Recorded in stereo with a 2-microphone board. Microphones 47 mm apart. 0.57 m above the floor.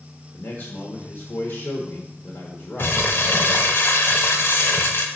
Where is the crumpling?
50° left (ahead or behind), 1.0 m.